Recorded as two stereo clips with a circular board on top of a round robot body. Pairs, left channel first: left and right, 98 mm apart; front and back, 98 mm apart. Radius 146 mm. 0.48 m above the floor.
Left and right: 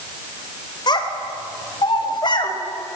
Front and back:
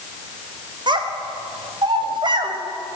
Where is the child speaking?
135° left, 2.0 m.